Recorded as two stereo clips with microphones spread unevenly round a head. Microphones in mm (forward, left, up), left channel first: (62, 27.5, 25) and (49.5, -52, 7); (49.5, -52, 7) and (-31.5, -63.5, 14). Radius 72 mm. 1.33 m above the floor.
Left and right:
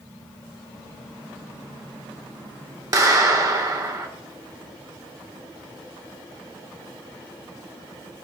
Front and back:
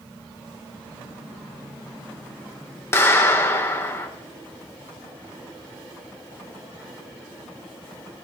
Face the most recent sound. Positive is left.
turn(degrees=-50)